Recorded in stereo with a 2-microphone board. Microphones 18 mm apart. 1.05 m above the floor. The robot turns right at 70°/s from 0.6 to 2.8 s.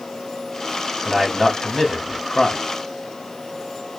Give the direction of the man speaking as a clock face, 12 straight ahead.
1 o'clock.